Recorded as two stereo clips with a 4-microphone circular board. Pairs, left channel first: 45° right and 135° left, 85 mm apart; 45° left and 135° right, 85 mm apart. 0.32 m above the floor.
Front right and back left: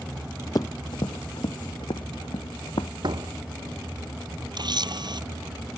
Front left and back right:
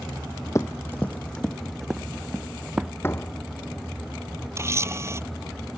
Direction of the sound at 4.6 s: 165° left.